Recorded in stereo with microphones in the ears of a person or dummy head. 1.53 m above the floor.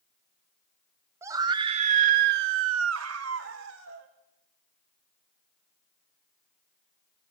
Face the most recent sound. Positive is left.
turn(degrees=-65)  # may be behind; listen again after turning